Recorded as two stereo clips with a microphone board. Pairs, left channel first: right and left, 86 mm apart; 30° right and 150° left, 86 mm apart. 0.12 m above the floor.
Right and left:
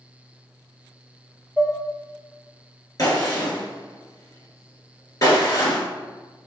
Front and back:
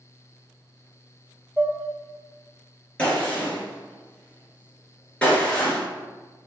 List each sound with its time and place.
1.6 s dishes clattering: 150° right, 0.9 m
3.0 s a gunshot: 100° right, 1.7 m